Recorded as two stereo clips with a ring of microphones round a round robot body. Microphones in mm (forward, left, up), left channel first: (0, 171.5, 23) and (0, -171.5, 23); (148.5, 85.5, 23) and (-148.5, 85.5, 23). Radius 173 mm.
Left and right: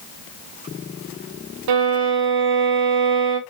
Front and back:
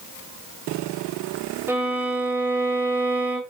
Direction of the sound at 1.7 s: 95° right.